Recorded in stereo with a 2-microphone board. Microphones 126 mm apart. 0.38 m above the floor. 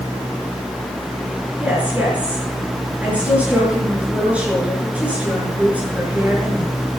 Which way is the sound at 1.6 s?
10° right (ahead or behind).